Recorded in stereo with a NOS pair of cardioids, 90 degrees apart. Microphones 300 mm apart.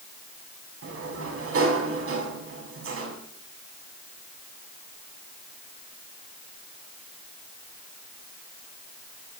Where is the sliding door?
45° right, 6 m.